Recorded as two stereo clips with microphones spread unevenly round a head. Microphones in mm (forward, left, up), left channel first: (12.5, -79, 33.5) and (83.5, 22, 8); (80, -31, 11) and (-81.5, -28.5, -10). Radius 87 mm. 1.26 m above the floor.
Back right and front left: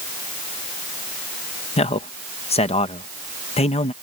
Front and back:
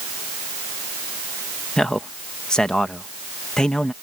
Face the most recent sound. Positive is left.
turn(degrees=-90)